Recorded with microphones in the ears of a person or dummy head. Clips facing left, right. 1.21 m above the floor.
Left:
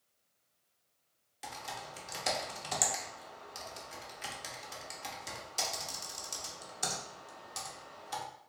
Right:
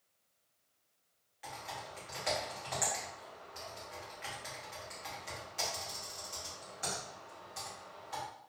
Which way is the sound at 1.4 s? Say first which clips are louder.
Left 1 dB; 45° left (ahead or behind).